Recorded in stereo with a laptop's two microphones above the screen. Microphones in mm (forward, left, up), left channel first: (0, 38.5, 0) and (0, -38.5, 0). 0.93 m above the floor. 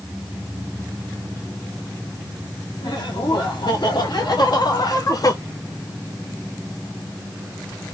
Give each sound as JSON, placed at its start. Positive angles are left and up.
{"t": 2.8, "sound": "laughter", "side_deg": 65, "distance_m": 2.5}